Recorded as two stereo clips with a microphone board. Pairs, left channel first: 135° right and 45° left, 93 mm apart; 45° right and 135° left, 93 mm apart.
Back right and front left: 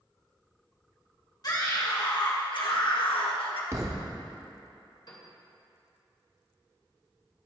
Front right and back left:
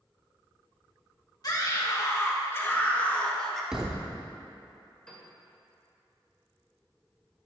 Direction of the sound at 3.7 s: 60° left.